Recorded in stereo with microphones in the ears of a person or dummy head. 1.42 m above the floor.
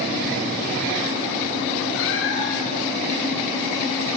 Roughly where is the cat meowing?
Left.